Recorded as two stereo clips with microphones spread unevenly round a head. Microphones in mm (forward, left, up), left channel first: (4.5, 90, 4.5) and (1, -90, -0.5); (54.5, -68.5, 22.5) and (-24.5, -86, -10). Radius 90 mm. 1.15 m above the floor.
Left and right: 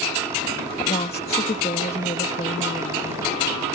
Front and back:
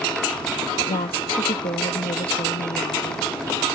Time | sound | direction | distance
0.8 | a woman speaking | 30° left | ?